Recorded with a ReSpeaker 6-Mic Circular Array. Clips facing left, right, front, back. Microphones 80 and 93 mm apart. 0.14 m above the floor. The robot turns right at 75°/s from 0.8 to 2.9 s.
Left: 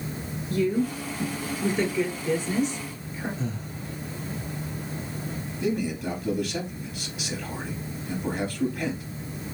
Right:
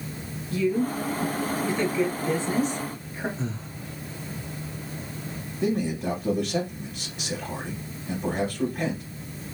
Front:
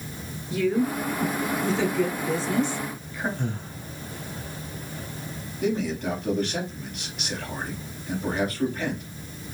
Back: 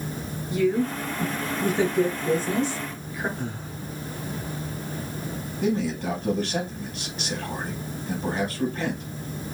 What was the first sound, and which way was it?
A woman speaking, 90° left.